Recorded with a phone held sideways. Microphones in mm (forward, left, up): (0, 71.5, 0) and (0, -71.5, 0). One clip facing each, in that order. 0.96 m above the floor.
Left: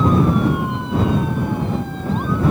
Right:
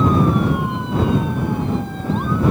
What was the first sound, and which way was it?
Only background noise.